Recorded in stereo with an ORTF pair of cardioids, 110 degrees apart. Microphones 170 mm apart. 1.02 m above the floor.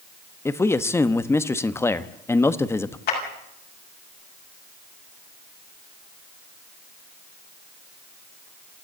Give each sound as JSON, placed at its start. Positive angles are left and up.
{"t": 0.5, "sound": "a man speaking", "azimuth_deg": 15, "distance_m": 1.2}
{"t": 3.1, "sound": "a clap", "azimuth_deg": 65, "distance_m": 6.5}